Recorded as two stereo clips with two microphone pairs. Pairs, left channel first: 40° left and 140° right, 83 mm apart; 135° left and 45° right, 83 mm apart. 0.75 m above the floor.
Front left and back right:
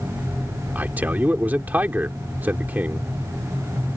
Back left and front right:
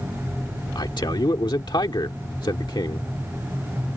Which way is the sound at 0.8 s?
150° left.